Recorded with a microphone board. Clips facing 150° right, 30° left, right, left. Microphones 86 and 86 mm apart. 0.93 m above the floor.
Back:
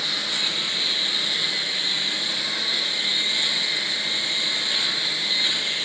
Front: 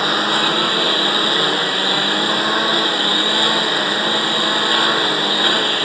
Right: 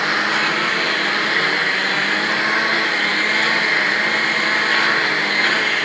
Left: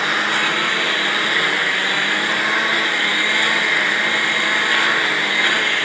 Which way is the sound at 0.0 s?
Straight ahead.